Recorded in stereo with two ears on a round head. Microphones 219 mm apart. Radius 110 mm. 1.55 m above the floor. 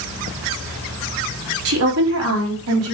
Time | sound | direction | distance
1.6 | a woman speaking | 60° right (ahead or behind) | 4.5 m